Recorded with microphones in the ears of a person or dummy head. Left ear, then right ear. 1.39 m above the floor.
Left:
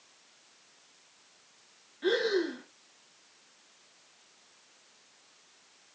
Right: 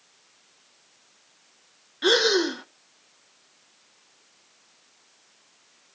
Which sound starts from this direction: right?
Breathing, at 2.0 s.